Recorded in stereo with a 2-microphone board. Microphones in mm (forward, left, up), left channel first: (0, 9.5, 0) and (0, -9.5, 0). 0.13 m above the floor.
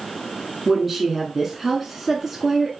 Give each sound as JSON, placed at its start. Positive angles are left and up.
{"t": 0.7, "sound": "a woman speaking", "side_deg": -5, "distance_m": 1.1}